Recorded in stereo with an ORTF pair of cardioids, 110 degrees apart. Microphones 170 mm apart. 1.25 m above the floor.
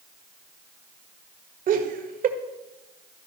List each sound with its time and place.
1.7 s laughter: 55° right, 1.7 m